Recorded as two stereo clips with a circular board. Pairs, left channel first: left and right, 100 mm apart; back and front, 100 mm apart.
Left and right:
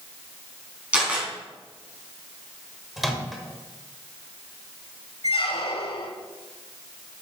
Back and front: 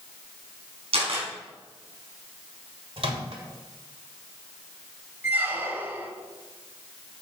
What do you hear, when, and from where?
0.9 s a camera shutter: 15° right, 3.5 m
3.0 s a microwave: straight ahead, 1.8 m
5.2 s a squeak: 70° left, 1.4 m